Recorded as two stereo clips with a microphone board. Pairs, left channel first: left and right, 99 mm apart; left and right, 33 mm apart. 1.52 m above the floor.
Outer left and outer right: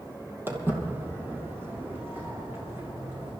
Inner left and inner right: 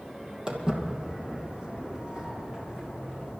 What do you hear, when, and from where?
0.5 s footsteps: 20° right (ahead or behind), 2.5 m; by 3.3 s 25° right (ahead or behind), 5.5 m